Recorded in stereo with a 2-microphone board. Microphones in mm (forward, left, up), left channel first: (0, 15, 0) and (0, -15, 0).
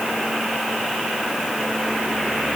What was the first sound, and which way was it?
Only background noise.